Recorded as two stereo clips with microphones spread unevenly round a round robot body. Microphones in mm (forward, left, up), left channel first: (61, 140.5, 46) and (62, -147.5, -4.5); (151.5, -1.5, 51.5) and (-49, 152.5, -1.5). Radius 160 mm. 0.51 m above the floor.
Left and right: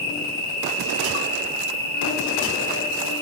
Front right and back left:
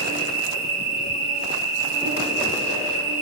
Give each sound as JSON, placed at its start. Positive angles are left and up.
{"t": 0.0, "sound": "an insect", "azimuth_deg": 145, "distance_m": 2.0}